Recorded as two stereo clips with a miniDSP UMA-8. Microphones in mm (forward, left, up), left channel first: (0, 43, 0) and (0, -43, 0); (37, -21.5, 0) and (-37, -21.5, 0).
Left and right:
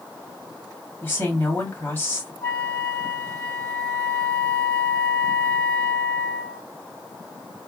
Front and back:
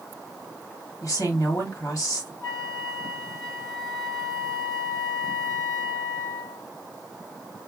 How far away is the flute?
About 2.5 m.